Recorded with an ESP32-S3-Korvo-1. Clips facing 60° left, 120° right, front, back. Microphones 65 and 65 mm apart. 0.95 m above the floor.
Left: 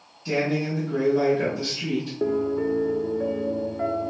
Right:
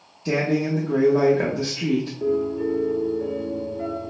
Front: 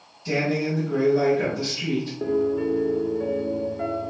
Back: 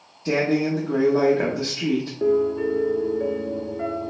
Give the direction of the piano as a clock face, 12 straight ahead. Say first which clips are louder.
Left 2 dB, back 3 dB; 9 o'clock.